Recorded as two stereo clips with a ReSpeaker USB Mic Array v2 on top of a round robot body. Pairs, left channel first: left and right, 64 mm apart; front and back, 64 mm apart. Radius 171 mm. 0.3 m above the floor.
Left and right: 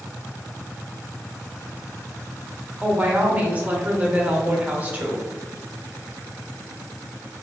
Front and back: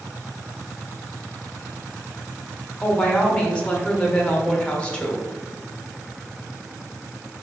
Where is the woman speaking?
55° right, 1.0 m.